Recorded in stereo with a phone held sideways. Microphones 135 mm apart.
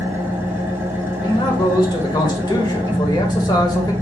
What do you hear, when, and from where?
0.0 s an engine running: 20° right (ahead or behind), 1.2 m
1.2 s a man speaking: 30° left (ahead or behind), 1.5 m